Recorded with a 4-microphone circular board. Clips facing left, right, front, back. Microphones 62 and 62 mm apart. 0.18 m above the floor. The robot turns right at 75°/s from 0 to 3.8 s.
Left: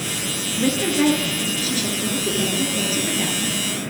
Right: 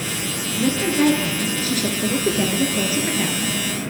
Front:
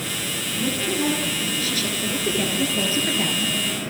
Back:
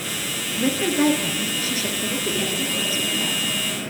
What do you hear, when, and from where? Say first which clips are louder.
0.6 s a woman speaking: right 1 dB, back 5 dB; 150° left, 2.5 m; by 3.5 s 10° left, 2.5 m